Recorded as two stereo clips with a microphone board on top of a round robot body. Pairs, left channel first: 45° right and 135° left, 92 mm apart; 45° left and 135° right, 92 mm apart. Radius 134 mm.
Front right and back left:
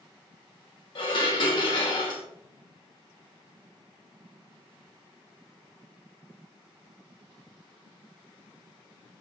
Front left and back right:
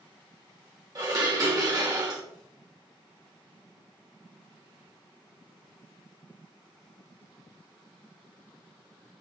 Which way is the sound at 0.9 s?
80° right.